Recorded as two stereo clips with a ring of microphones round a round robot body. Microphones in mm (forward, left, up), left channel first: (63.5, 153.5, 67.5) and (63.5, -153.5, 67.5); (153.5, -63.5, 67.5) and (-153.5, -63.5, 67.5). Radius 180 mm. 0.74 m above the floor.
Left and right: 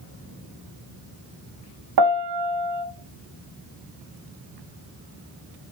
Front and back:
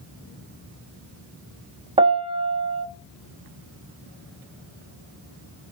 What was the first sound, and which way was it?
A piano, 110° right.